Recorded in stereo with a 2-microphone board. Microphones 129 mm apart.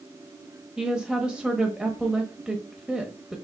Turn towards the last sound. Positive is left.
turn(degrees=-5)  # may be behind; listen again after turning